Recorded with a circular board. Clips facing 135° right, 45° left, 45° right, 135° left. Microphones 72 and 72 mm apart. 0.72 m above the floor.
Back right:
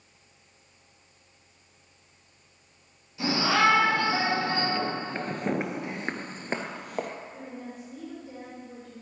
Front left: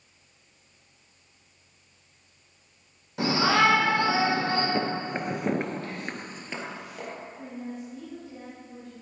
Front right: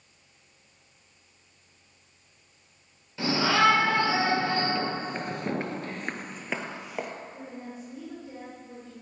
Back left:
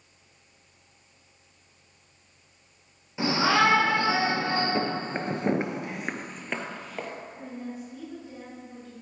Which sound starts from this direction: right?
A woman speaking, at 7.3 s.